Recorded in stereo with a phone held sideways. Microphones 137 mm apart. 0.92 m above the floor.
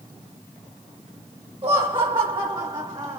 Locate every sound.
1.6 s laughter: 35° right (ahead or behind), 1.8 m